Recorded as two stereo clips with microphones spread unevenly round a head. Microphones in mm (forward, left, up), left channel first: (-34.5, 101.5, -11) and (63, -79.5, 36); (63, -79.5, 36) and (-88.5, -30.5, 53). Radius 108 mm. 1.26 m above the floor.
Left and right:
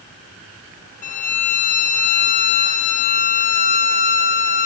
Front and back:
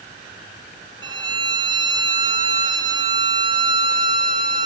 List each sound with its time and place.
1.0 s a violin: 100° left, 0.6 m